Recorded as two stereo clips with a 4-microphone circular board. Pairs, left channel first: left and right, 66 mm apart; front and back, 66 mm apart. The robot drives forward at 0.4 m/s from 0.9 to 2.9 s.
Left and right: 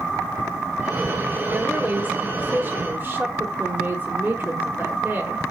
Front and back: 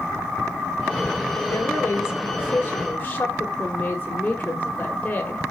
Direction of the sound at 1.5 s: 30° right.